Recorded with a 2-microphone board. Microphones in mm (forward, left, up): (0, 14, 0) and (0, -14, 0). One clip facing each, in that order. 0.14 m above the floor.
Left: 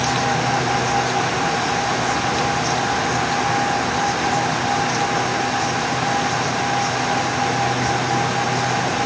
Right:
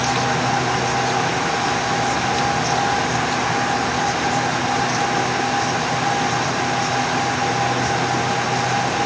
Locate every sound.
Only background noise.